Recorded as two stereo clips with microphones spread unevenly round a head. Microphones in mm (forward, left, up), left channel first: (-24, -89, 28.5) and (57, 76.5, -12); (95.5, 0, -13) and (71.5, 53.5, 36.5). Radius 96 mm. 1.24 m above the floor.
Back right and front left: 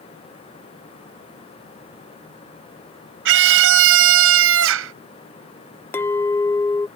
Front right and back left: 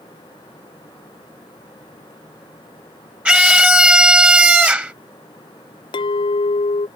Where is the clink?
70° right.